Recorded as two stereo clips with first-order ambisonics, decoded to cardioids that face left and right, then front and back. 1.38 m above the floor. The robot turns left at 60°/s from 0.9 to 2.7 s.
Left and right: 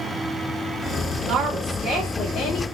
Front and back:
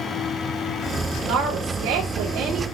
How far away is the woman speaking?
About 3 m.